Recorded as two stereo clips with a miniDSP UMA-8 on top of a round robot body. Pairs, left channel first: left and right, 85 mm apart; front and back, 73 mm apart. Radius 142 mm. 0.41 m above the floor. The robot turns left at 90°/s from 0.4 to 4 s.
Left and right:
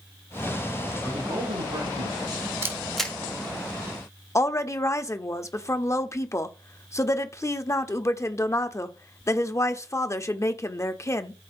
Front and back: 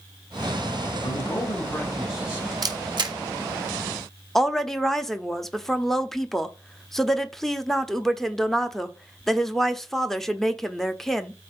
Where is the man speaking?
5° right, 5 m; by 2.5 s 140° right, 5 m.